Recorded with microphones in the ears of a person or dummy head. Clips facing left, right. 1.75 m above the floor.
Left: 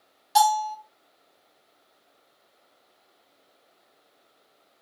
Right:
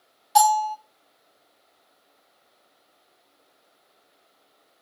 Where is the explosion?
No explosion in this recording.